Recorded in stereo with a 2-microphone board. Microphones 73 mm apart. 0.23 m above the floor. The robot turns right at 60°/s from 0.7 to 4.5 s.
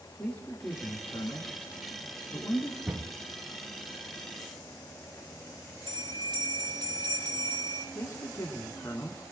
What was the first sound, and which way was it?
A man speaking, 20° left (ahead or behind).